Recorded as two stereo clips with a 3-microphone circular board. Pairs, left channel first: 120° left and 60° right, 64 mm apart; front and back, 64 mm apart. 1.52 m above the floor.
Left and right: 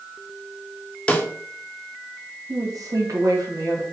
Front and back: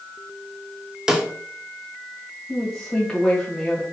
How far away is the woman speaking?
About 2 m.